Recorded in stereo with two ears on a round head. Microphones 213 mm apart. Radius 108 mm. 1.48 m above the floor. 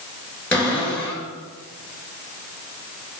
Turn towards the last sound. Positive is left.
turn(degrees=10)  # may be behind; listen again after turning